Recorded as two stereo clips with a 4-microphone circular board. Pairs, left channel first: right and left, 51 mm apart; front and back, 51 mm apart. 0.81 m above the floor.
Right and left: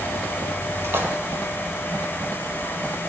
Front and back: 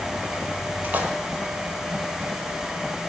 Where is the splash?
125° left, 1.2 m.